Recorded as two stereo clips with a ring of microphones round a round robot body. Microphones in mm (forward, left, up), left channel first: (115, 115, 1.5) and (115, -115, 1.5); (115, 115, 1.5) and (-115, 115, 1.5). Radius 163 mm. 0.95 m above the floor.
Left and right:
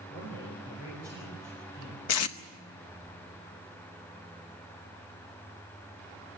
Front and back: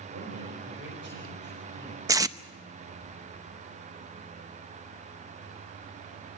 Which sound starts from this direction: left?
Tape being pulled, at 2.1 s.